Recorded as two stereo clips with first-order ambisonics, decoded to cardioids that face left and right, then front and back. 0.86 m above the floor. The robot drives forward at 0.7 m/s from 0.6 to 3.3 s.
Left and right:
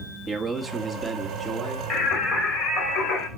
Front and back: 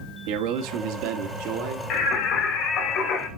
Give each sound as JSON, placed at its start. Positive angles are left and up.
{"t": 0.3, "sound": "a man speaking", "azimuth_deg": -170, "distance_m": 1.2}
{"t": 1.9, "sound": "singing", "azimuth_deg": 35, "distance_m": 3.0}